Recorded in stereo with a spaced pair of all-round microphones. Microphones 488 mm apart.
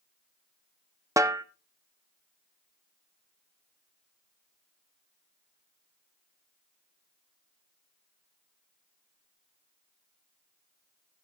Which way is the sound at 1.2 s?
5° right (ahead or behind).